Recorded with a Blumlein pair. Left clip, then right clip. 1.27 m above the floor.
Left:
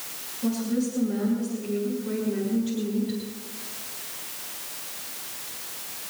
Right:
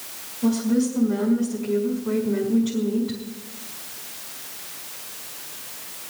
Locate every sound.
0.4 s a woman speaking: 65° right, 5 m